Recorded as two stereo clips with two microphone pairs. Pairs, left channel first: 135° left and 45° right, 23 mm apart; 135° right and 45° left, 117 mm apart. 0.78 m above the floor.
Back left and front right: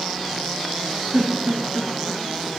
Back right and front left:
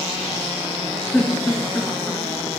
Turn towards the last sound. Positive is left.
turn(degrees=-55)